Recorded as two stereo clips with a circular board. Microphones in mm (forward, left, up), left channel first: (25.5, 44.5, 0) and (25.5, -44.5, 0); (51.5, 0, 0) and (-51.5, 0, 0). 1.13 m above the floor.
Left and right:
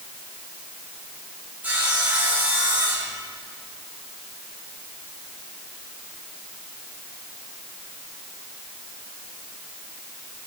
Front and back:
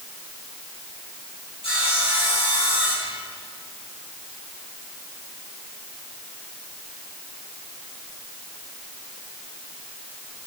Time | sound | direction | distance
1.6 | sawing | 20° right | 5 m